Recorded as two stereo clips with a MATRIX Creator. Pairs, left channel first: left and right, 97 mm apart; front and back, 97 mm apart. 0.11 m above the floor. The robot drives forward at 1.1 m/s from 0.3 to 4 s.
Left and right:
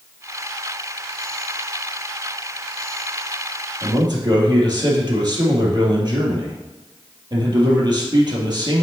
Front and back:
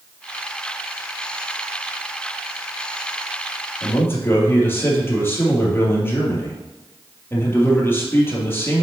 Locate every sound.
3.8 s a man speaking: 60° right, 3 m